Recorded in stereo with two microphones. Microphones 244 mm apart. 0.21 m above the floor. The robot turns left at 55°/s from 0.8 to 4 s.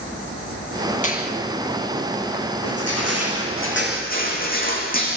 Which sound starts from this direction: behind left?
Crushing, at 2.6 s.